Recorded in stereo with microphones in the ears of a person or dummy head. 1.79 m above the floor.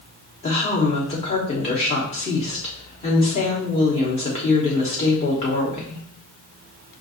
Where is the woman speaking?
30° left (ahead or behind), 1.2 m.